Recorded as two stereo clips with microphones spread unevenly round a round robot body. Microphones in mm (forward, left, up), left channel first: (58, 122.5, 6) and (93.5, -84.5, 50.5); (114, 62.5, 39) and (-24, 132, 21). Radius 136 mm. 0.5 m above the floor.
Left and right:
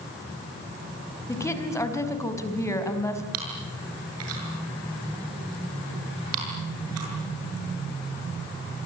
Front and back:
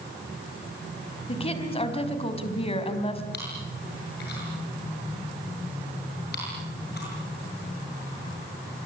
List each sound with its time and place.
1.3 s a woman speaking: 25° left, 4.5 m
3.3 s chewing: 75° right, 7.5 m